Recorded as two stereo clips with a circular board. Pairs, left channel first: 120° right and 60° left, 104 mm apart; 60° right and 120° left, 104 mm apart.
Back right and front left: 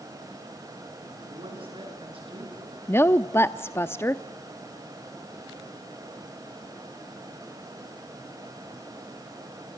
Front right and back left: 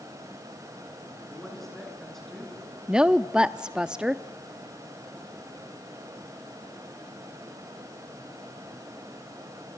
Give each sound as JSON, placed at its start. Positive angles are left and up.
{"t": 1.3, "sound": "a man speaking", "azimuth_deg": 25, "distance_m": 9.5}
{"t": 2.9, "sound": "a woman speaking", "azimuth_deg": -165, "distance_m": 0.6}